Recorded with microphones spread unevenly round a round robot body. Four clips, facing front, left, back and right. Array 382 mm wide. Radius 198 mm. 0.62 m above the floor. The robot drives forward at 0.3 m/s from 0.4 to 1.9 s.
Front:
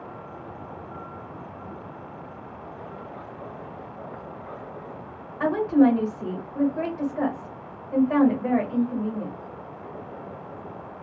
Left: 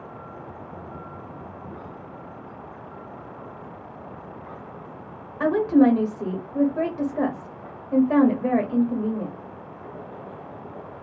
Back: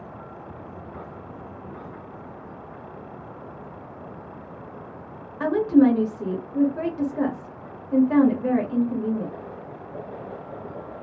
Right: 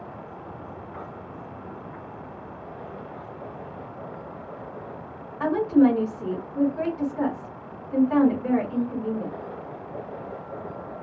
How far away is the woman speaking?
About 1.3 m.